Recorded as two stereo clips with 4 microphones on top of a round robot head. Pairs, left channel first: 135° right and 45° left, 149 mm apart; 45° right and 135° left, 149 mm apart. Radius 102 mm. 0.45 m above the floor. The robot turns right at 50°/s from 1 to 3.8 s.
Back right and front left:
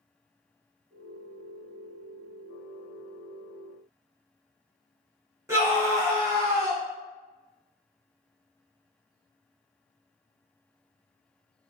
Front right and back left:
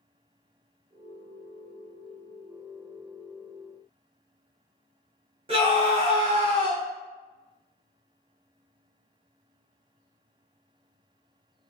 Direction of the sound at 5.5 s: 105° left.